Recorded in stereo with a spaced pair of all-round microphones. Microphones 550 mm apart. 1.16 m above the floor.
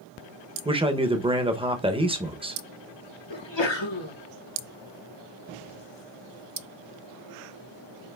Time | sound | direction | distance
0.7 | a man speaking | 10° right (ahead or behind) | 0.6 m
3.3 | a sneeze | 50° left (ahead or behind) | 1.1 m